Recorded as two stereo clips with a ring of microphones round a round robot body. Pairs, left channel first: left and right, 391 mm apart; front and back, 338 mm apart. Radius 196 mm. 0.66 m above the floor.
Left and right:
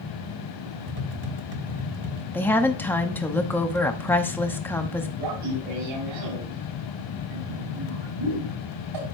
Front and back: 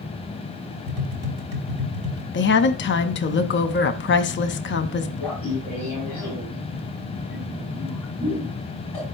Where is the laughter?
85° right, 6 m.